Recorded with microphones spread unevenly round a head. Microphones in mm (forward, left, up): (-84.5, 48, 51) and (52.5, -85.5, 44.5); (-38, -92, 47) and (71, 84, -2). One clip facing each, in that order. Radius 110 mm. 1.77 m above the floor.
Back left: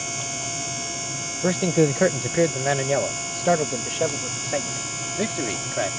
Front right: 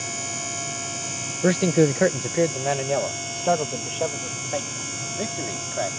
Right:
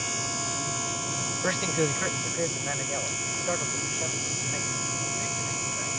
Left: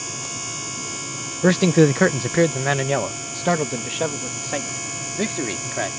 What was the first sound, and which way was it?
A man speaking, 25° left.